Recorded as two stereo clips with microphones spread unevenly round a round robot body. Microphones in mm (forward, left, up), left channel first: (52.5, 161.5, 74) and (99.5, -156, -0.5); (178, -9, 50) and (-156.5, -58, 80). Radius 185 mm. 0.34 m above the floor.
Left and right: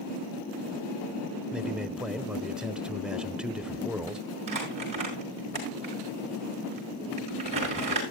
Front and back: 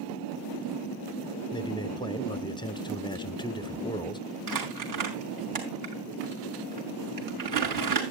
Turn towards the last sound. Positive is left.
turn(degrees=-150)